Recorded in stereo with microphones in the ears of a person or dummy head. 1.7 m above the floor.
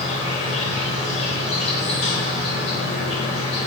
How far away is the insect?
About 5.5 m.